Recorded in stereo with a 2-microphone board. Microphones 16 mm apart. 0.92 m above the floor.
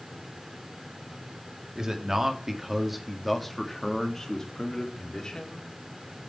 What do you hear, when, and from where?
1.8 s a man speaking: 35° right (ahead or behind), 1.9 m; by 5.7 s 50° left (ahead or behind), 2.5 m